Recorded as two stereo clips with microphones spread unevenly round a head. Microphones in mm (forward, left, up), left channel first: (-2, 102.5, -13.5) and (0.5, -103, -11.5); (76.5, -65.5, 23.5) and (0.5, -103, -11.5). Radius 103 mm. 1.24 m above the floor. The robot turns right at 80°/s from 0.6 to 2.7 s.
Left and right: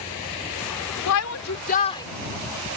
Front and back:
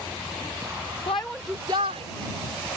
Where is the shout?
90° left; by 2.1 s 165° left.